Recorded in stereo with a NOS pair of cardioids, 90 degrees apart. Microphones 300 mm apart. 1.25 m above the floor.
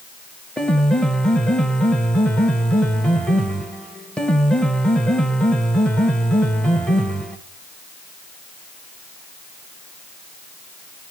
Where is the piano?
5° left, 0.6 m.